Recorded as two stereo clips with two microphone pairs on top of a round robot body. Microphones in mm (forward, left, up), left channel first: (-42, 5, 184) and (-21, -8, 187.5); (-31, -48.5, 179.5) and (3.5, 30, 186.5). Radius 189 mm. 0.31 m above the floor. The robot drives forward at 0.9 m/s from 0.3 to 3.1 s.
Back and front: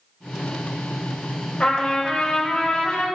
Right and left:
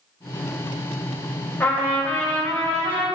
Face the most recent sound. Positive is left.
turn(degrees=180)